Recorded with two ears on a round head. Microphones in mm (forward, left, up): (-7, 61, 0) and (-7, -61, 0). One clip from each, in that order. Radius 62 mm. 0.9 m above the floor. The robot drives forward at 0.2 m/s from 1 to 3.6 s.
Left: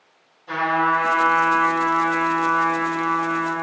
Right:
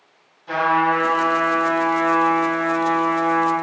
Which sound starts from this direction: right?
A trumpet, at 0.5 s.